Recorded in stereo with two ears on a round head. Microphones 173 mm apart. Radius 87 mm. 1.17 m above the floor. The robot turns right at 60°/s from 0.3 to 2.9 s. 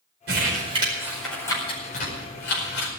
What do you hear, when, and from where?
0.3 s crumpling: 55° right (ahead or behind), 5 m; by 2.9 s 80° left, 5 m